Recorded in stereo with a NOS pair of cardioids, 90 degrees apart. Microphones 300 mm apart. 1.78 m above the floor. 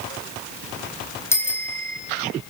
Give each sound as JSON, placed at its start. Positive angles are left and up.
{"t": 1.3, "sound": "a bicycle bell", "azimuth_deg": 10, "distance_m": 6.5}